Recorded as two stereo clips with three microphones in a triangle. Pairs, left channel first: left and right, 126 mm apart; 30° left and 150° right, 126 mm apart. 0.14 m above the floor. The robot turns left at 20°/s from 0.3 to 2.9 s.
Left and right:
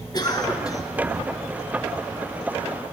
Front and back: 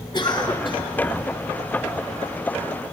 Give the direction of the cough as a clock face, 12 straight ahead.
10 o'clock.